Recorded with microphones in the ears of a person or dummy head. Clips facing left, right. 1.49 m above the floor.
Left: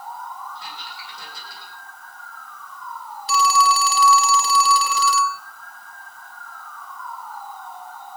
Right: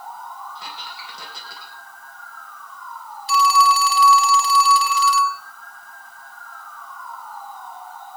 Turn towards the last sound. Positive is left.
turn(degrees=35)  # may be behind; listen again after turning